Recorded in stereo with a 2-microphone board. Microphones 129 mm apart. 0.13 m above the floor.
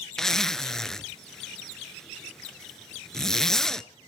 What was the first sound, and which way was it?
A zipper, 5° left (ahead or behind).